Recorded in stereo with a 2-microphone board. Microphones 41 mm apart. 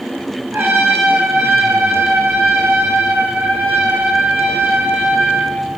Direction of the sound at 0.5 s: 65° right (ahead or behind).